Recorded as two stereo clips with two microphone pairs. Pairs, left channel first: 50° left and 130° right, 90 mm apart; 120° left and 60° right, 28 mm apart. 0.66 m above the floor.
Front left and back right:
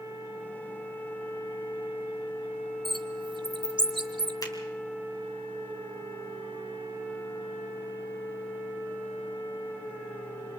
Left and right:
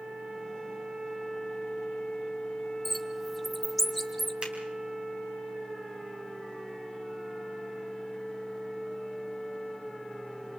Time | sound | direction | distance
2.9 | a bird | 145° right | 1.2 m
4.4 | a finger snap | 5° left | 3.5 m